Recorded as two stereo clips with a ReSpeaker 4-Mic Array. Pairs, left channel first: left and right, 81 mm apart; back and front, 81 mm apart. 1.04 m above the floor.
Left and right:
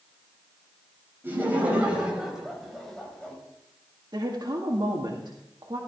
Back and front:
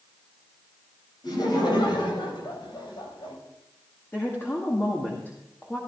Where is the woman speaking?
115° right, 2.0 m.